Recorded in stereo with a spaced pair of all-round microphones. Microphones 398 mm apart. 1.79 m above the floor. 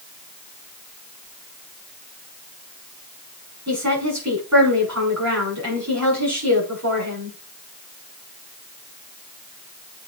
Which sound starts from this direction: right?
A woman speaking, at 3.7 s.